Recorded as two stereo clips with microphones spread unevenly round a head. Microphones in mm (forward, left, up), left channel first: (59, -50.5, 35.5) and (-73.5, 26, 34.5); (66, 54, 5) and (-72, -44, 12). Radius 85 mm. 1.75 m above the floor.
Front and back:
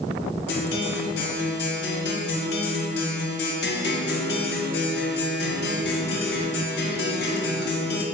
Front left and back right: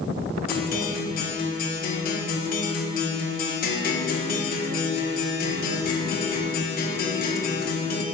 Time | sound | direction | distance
0.5 | a guitar | 5° right | 1.6 m